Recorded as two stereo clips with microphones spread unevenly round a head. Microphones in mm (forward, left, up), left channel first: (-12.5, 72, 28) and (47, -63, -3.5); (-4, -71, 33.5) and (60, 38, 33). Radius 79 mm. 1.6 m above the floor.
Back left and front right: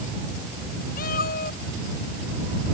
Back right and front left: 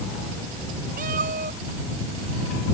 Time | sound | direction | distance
1.0 | a cat meowing | 90° left | ?